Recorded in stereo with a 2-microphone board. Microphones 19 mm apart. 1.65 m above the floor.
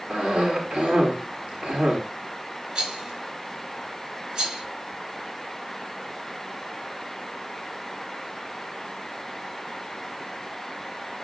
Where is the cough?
85° right, 5 m.